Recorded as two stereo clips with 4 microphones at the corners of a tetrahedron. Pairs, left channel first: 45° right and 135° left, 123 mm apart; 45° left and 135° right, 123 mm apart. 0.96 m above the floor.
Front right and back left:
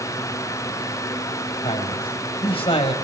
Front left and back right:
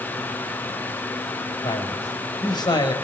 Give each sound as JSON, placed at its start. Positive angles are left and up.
{"t": 1.6, "sound": "a man speaking", "azimuth_deg": -10, "distance_m": 5.0}